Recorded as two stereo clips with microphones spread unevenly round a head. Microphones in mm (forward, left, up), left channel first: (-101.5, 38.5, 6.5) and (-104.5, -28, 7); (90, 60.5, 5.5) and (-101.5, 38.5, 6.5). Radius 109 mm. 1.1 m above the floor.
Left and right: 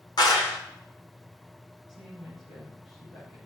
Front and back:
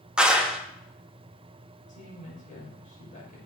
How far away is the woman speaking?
About 6 m.